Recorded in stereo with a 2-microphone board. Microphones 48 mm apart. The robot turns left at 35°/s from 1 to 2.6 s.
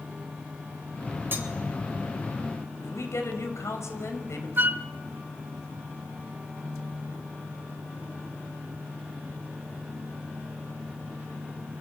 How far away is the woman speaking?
About 6 m.